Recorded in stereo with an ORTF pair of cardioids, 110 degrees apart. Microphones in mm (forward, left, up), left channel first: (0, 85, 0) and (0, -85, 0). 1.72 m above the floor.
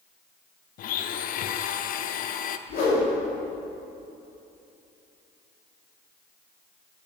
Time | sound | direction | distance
0.8 | a blender | 55° left | 0.6 m
2.7 | a whoosh | 65° left | 3 m